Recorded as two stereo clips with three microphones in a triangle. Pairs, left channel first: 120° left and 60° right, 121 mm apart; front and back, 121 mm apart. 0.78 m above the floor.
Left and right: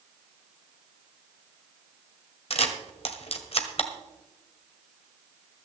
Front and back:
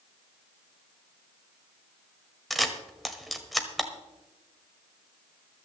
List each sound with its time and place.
2.5 s a camera shutter: 90° left, 1.3 m